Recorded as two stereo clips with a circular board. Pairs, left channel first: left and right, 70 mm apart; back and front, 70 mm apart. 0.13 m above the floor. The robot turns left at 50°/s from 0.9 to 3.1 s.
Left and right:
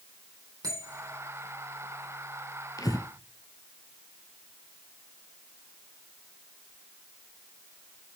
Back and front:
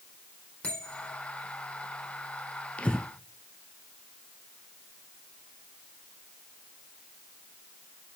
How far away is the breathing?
About 0.8 m.